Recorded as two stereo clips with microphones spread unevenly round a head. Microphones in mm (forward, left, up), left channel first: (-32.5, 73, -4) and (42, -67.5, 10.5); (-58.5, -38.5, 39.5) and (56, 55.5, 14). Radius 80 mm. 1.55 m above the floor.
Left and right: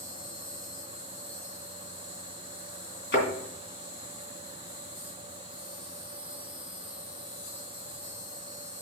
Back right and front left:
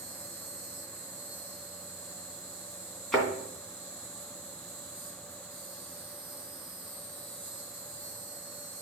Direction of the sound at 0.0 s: 100° left.